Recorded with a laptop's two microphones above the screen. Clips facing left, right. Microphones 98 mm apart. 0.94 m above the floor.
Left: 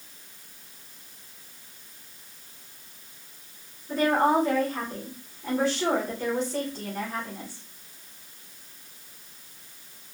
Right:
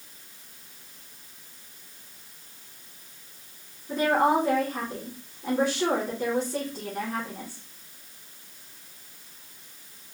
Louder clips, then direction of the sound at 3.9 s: Even; 15° right (ahead or behind).